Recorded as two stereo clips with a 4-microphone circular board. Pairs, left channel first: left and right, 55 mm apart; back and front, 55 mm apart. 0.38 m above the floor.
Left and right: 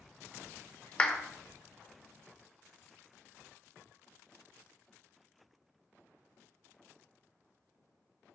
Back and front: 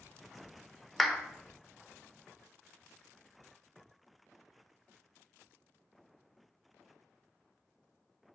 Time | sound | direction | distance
1.0 | a clap | 95° left | 0.6 m